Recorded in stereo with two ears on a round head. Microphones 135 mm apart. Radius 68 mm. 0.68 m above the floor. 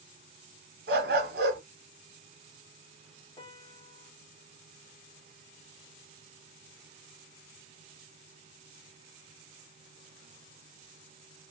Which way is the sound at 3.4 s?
30° left (ahead or behind).